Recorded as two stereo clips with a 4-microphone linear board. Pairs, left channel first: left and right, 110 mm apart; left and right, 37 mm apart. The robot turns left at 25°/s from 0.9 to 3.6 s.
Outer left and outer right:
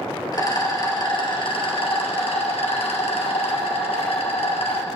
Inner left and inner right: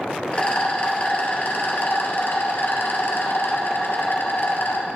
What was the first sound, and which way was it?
A rattle, 140° left.